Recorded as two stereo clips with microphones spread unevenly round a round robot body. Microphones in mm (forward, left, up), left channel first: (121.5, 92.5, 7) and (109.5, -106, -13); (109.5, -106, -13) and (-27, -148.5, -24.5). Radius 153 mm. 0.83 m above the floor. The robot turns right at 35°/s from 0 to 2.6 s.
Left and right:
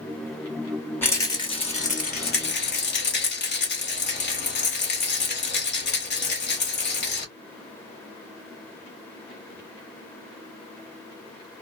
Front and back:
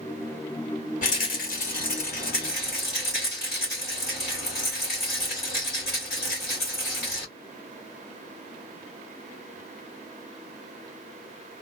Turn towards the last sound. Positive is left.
turn(degrees=60)